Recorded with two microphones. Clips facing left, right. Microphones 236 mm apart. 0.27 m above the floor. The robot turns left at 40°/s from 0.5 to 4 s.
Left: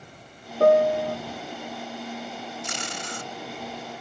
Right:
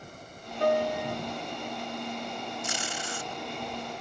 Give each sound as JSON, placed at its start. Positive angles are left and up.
{"t": 0.6, "sound": "a piano", "side_deg": 75}
{"t": 2.6, "sound": "tape being pulled", "side_deg": 80}